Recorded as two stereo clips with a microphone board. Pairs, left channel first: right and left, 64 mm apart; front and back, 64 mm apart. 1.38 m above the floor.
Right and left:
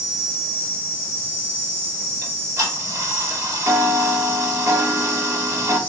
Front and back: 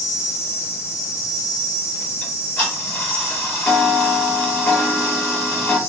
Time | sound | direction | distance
0.0 | an insect | 40° left | 3.5 m
2.2 | ticking | 60° left | 3 m